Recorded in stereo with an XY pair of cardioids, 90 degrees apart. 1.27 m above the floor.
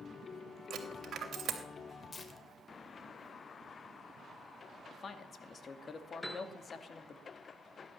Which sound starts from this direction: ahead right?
A dropped coin, at 0.7 s.